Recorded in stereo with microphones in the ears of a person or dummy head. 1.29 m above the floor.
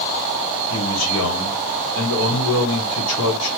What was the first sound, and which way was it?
A man speaking, 75° left (ahead or behind).